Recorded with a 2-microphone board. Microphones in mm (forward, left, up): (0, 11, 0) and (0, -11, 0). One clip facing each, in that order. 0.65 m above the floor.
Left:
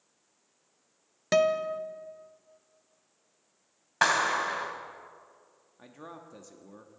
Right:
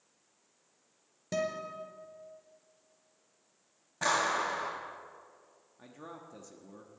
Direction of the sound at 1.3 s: 75° left (ahead or behind).